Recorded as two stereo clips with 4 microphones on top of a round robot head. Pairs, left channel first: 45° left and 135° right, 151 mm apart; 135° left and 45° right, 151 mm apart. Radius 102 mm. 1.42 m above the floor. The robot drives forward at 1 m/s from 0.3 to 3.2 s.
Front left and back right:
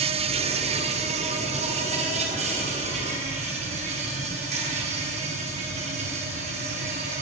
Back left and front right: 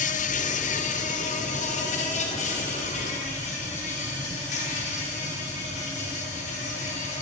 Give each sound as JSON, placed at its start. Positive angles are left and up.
{"t": 0.0, "sound": "an insect", "azimuth_deg": 175, "distance_m": 1.1}